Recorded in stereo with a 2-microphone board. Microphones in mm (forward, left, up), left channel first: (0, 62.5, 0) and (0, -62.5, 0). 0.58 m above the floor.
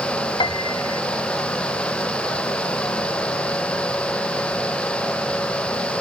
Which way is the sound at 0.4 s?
40° left (ahead or behind).